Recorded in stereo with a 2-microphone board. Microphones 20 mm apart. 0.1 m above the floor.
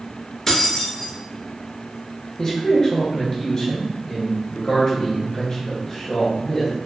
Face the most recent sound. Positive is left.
turn(degrees=30)  # may be behind; listen again after turning